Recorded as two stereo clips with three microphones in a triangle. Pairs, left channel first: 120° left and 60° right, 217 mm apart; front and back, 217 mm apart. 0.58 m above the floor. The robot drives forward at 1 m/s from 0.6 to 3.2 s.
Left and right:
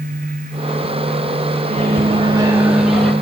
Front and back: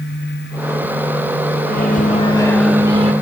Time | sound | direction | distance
1.6 | a microwave | 10° right | 1.3 m